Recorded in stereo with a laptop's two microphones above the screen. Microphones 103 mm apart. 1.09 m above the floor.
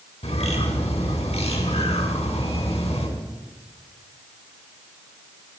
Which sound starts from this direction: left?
A bird, at 0.2 s.